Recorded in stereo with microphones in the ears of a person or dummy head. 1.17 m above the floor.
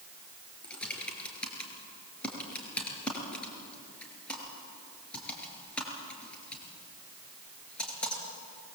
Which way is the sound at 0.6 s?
5° left (ahead or behind).